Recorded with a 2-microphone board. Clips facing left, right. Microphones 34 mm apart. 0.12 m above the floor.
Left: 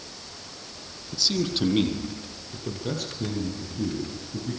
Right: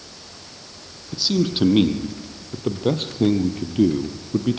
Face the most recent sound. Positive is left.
turn(degrees=-65)  # may be behind; listen again after turning